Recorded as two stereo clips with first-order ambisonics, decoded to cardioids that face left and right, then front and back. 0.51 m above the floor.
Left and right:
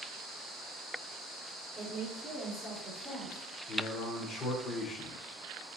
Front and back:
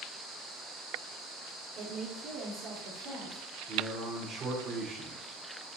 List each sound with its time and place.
1.8 s a woman speaking: 145° right, 1.2 m; by 3.4 s 150° left, 1.5 m
3.7 s a man speaking: 130° left, 1.1 m